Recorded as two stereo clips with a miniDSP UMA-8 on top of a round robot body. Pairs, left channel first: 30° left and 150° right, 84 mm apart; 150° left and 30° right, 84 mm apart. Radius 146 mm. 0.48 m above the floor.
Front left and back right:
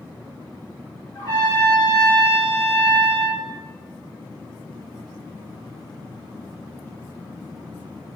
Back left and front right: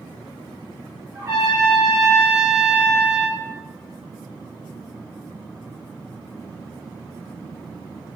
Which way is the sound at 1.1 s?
20° left.